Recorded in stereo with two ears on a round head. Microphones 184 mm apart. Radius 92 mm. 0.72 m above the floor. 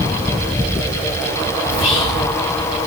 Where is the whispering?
85° left, 5.5 m.